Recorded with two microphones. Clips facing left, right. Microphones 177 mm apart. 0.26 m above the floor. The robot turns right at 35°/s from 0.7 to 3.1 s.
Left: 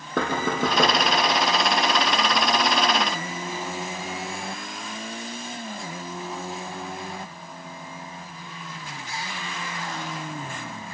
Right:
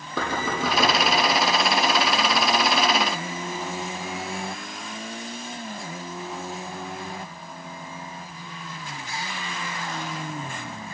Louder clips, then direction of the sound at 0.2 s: Left 3 dB; 60° left (ahead or behind).